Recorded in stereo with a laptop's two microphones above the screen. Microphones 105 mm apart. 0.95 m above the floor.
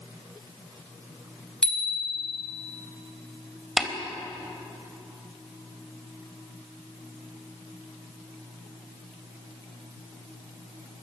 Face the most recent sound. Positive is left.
turn(degrees=-5)  # may be behind; listen again after turning